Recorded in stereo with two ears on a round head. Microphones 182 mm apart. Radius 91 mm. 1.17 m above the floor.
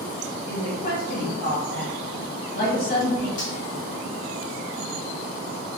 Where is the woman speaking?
50° left (ahead or behind), 1.6 m.